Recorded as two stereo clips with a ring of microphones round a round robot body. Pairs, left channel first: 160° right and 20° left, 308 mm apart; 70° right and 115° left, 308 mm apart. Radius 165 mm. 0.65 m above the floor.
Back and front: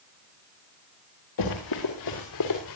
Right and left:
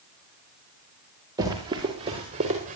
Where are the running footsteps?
170° right, 5 m; by 2.8 s straight behind, 5 m.